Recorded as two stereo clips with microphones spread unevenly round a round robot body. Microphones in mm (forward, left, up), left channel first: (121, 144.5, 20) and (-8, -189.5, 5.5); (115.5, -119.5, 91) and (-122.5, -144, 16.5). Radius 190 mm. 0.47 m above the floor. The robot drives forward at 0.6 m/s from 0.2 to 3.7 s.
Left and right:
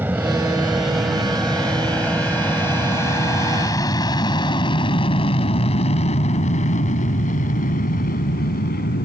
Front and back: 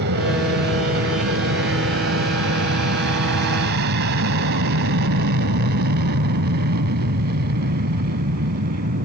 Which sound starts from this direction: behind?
An aircraft, at 0.0 s.